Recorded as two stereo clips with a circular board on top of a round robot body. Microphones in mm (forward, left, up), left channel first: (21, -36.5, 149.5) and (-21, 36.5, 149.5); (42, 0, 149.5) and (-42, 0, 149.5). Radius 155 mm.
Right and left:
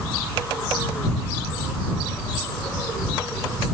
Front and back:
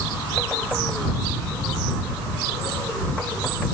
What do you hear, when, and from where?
Only background noise.